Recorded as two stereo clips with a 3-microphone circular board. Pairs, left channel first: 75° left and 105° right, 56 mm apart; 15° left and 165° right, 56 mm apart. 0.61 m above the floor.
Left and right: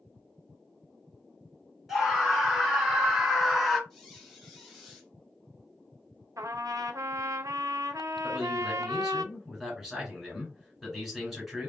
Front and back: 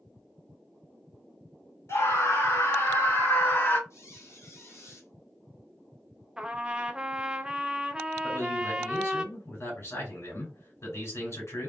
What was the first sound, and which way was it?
A scream, 15° right.